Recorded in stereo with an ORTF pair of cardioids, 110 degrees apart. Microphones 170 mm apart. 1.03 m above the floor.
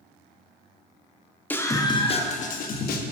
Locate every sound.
1.5 s a scream: 10° left, 1.3 m; by 3.0 s 65° left, 1.4 m